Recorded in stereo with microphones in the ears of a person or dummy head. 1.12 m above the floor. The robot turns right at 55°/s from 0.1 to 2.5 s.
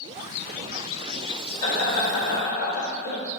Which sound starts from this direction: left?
Laughter, at 1.6 s.